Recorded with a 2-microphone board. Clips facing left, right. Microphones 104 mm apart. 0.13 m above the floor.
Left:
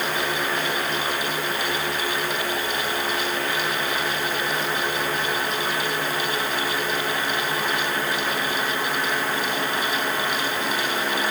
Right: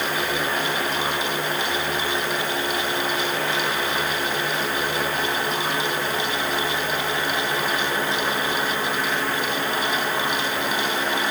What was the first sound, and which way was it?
Only background noise.